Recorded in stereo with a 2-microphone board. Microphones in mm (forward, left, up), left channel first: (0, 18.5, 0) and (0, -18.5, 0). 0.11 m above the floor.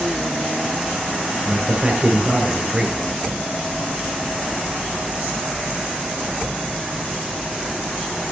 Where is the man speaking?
30° right (ahead or behind), 1.7 m.